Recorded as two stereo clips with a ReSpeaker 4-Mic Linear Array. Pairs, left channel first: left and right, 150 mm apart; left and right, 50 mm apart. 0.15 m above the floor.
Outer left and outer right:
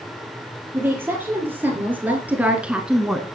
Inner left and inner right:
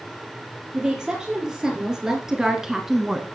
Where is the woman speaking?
15° right (ahead or behind), 4.5 m; by 3.3 s centre (ahead or behind), 1.4 m.